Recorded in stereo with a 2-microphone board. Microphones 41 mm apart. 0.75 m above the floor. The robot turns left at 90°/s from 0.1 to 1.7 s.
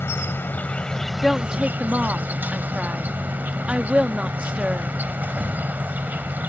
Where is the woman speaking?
10° left; by 4.9 s 30° right.